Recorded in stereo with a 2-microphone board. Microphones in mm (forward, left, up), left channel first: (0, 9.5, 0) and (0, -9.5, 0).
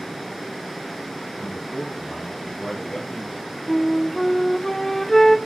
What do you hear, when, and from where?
1.4 s a man speaking: 40° left (ahead or behind), 1.7 m; by 3.5 s 55° left (ahead or behind), 4.5 m
3.7 s a flute: 20° left (ahead or behind), 0.6 m